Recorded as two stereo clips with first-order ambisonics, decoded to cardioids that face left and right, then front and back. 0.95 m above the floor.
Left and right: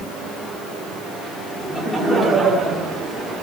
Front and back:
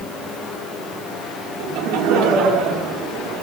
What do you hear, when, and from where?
1.6 s laughter: 175° left, 2.5 m; by 3.4 s 155° right, 2.5 m